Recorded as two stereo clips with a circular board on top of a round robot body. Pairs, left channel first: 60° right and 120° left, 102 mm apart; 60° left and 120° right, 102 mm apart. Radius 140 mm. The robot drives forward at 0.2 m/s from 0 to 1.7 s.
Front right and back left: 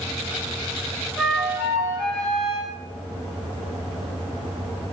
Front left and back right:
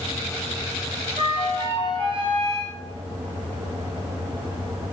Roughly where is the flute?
Behind right.